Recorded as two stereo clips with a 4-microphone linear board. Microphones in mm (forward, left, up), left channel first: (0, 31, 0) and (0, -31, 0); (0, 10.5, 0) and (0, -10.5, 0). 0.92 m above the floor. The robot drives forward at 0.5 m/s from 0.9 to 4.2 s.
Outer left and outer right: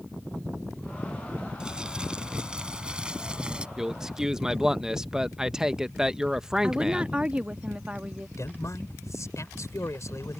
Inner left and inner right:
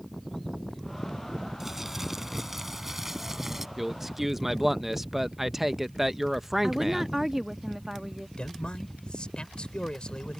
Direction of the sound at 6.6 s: 20° right (ahead or behind).